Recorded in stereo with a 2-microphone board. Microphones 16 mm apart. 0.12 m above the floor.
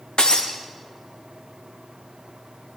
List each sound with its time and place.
0.2 s breaking glass: 70° left (ahead or behind), 1.6 m